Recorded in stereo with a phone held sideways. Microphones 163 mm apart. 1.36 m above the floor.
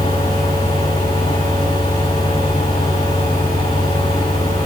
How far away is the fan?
About 5 m.